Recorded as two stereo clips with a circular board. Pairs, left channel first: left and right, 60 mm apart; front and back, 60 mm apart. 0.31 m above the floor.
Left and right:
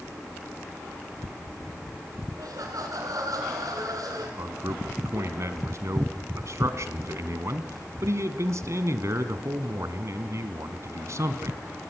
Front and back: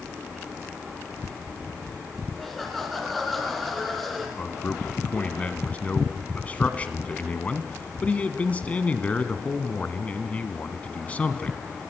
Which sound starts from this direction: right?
Laughter, at 2.4 s.